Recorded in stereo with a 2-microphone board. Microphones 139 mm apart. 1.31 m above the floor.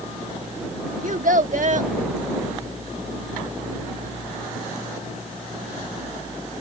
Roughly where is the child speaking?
Right.